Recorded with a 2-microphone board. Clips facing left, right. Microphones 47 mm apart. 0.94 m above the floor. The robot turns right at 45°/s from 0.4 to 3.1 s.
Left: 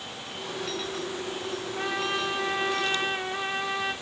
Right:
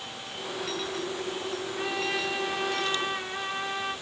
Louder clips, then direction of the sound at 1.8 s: Left 2 dB; 5° left.